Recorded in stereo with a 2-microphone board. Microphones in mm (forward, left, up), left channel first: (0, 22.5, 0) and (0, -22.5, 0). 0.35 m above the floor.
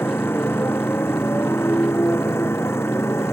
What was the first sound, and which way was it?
A motorcycle, 60° left (ahead or behind).